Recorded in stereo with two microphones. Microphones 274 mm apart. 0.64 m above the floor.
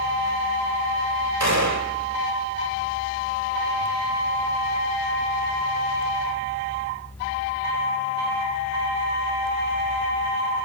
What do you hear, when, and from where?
1.4 s a gunshot: 85° right, 1.4 m